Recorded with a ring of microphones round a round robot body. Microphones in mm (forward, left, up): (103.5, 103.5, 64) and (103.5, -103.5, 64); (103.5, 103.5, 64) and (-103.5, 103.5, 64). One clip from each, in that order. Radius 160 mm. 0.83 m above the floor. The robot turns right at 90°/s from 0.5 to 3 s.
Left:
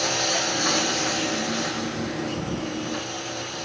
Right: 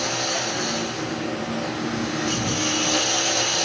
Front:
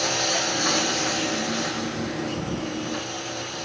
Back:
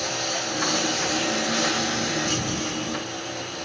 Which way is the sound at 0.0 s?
45° left.